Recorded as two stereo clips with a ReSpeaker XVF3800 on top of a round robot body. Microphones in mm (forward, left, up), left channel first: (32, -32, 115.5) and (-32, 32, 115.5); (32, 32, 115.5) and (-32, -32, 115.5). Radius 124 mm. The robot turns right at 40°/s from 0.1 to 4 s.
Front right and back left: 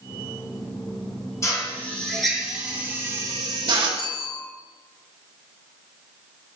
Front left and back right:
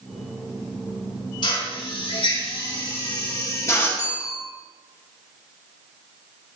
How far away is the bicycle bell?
About 5.5 m.